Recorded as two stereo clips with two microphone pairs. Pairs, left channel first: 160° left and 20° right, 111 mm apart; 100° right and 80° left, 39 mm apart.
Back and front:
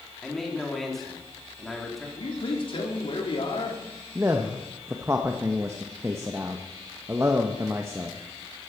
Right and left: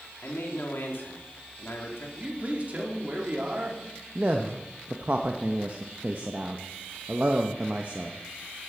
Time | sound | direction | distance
0.2 | a man speaking | 110° right | 2.5 m
2.2 | a man speaking | 130° left | 2.5 m
4.2 | a man speaking | 45° left | 0.8 m